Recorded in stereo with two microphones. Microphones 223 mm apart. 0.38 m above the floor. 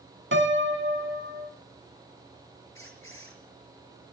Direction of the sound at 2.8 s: 70° left (ahead or behind).